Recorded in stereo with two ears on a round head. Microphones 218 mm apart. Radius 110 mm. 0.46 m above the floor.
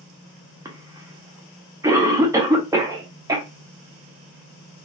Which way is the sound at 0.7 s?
15° right (ahead or behind).